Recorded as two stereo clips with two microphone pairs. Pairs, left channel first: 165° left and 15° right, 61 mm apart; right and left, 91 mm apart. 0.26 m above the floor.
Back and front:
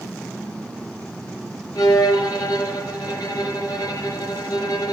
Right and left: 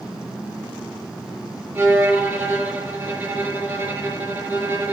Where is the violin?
155° left, 4 m.